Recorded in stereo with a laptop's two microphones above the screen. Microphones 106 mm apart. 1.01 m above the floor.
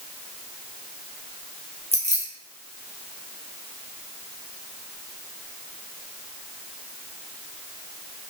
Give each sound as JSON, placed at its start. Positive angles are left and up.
{"t": 1.9, "sound": "keys jangling", "side_deg": -85, "distance_m": 1.2}